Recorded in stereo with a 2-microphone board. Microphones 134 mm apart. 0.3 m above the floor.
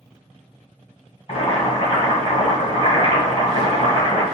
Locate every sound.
1.3 s boiling: 50° left (ahead or behind), 1.6 m